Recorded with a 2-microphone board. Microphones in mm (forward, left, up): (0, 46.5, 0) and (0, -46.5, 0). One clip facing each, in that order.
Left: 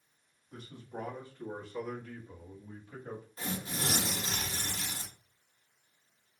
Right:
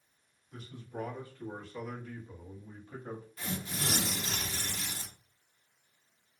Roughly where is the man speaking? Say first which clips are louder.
Right 1 dB; left.